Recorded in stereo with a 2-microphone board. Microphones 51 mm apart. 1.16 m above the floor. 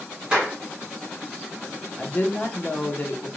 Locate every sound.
0.3 s a clap: 20° right (ahead or behind), 1.9 m
2.0 s a woman speaking: 35° left (ahead or behind), 0.8 m